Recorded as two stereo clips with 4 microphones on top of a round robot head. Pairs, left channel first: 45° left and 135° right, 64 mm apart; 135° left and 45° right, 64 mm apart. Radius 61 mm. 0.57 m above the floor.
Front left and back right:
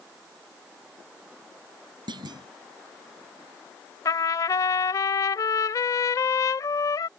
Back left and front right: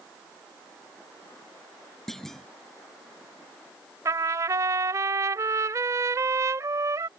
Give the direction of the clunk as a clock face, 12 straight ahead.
5 o'clock.